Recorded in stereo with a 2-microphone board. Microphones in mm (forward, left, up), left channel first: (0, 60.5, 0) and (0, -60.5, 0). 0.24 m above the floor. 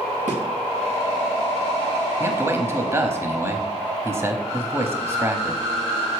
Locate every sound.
0.3 s a thud: 85° right, 2.5 m
2.2 s a man speaking: 20° right (ahead or behind), 1.0 m